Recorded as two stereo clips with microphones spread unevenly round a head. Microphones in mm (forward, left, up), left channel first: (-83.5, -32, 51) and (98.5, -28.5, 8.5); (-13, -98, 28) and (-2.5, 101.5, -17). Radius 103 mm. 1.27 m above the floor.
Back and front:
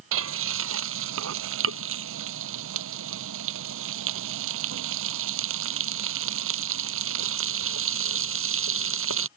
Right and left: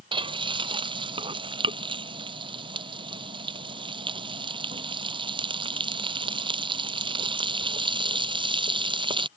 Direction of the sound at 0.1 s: 20° left.